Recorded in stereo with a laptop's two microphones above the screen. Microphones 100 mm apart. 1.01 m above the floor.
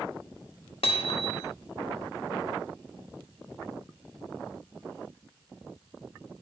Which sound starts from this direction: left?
Hammering, at 0.8 s.